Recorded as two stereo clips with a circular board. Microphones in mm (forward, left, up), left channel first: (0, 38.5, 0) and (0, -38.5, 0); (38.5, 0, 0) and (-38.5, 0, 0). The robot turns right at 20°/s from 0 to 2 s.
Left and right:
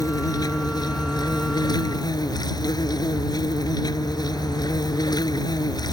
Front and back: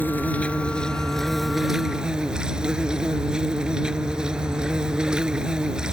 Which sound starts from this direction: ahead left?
An insect, at 0.0 s.